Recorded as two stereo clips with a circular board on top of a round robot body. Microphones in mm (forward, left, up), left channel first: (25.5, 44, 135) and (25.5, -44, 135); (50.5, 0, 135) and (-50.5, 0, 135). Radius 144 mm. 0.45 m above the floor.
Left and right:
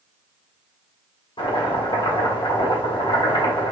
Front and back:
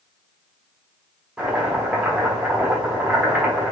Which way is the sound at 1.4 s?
100° left.